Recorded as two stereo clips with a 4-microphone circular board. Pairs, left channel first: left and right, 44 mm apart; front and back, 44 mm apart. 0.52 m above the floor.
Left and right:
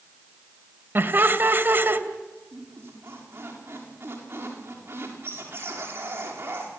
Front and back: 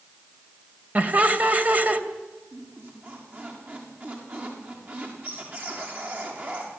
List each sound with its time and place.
0.9 s laughter: 130° right, 2.5 m
2.5 s a squeak: 130° right, 7.5 m